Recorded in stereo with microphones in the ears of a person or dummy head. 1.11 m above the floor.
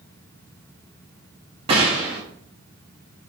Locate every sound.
1.7 s a gunshot: 25° right (ahead or behind), 0.8 m